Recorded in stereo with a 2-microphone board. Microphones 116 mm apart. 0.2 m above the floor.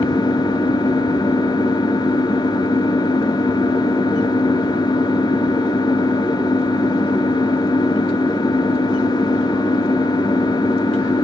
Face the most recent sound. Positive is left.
turn(degrees=40)  # may be behind; listen again after turning